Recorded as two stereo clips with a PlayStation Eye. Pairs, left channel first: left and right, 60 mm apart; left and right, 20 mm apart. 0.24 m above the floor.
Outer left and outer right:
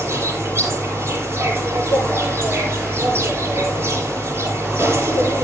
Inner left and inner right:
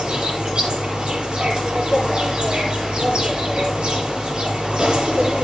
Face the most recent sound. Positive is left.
turn(degrees=-40)  # may be behind; listen again after turning